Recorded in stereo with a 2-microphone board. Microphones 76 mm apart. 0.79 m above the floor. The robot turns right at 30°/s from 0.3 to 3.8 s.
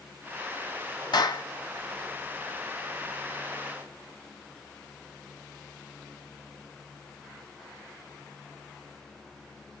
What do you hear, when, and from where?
1.1 s a clap: 65° left (ahead or behind), 0.8 m; by 1.4 s 55° left (ahead or behind), 0.8 m